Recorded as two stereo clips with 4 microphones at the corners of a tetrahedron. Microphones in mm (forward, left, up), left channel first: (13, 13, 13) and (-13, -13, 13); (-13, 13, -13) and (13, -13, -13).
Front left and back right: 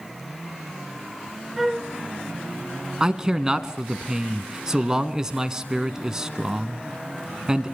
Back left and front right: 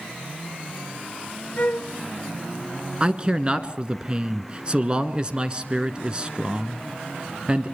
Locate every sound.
1.6 s a flute: 140° left, 0.9 m
3.0 s a man speaking: 80° right, 1.2 m